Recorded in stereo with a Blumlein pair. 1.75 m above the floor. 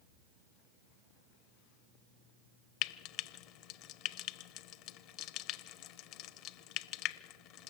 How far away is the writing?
I don't hear writing.